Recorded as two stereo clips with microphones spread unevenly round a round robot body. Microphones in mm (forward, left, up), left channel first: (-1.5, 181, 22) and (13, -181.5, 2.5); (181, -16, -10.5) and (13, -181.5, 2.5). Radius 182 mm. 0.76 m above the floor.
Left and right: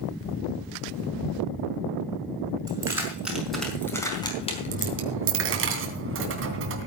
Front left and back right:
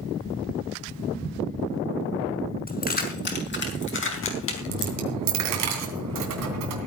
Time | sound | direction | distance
2.7 | keys jangling | 5° right | 5.5 m
4.7 | a dropped coin | 145° right | 2.5 m